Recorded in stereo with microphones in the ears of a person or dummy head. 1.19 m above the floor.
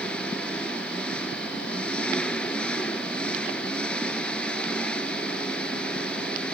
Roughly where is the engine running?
Centre.